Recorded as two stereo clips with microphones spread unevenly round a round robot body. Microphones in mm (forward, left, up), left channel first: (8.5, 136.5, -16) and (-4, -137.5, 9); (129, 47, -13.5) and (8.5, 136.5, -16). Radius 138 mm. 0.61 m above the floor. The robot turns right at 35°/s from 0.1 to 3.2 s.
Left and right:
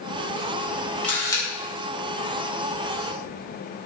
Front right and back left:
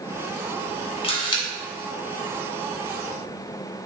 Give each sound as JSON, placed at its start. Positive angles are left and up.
{"t": 1.0, "sound": "a camera shutter", "azimuth_deg": 5, "distance_m": 1.0}